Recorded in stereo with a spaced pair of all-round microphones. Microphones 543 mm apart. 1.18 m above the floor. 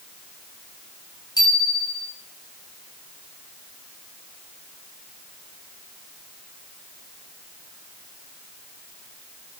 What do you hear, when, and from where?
1.4 s a bicycle bell: 5° left (ahead or behind), 6.5 m